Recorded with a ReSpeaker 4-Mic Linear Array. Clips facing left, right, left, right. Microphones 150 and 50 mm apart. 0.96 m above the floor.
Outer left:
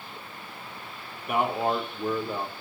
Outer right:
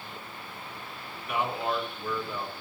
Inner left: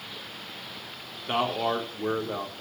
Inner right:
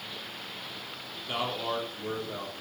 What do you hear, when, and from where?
1.3 s a man speaking: 50° left (ahead or behind), 3 m